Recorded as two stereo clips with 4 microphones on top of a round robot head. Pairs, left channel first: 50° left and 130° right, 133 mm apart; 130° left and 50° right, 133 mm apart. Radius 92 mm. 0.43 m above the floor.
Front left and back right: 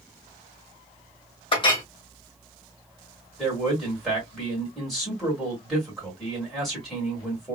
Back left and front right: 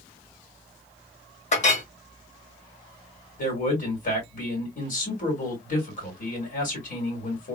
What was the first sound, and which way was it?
A clink, 100° left.